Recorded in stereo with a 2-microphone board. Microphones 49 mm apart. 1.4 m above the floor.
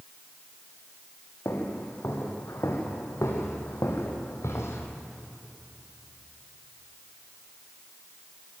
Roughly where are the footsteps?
Left.